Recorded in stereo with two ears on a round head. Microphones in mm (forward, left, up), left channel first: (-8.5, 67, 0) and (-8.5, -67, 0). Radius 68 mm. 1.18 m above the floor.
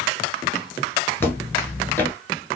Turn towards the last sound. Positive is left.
turn(degrees=15)  # may be behind; listen again after turning